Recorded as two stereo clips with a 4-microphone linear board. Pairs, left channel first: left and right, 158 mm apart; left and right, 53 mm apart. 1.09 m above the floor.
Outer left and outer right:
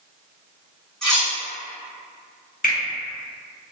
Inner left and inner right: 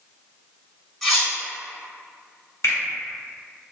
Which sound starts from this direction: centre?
Cutlery clinking, at 1.0 s.